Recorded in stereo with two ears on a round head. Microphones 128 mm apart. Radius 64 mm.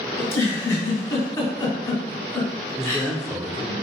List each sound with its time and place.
0.2 s a giggle: 25° left (ahead or behind), 1.4 m
2.8 s a man speaking: 5° right (ahead or behind), 0.9 m